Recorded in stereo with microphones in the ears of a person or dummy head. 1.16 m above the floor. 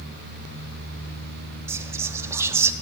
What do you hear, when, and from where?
1.7 s whispering: 15° right (ahead or behind), 0.8 m